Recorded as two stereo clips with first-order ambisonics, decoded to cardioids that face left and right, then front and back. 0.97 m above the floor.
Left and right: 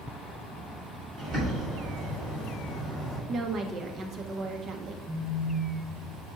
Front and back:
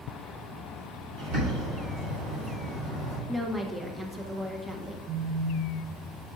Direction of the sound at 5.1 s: 170° right.